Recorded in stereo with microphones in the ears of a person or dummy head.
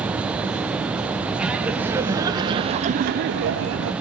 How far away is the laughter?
About 1.3 m.